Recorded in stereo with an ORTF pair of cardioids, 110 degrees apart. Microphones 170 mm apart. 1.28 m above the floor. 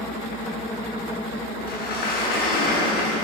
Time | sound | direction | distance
1.7 | a sliding door | 65° left | 8 m